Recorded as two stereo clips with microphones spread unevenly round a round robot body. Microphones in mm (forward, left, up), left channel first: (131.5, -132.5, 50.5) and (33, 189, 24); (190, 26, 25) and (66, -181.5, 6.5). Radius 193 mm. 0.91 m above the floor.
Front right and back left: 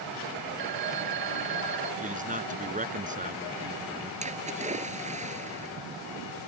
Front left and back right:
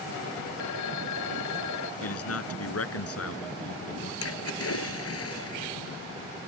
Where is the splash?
35° left.